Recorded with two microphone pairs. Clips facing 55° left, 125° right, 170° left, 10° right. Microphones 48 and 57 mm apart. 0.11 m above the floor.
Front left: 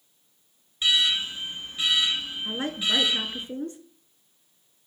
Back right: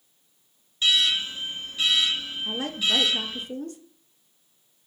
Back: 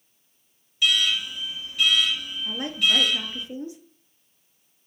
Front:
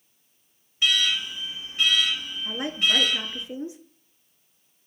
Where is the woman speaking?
35° left, 1.2 m.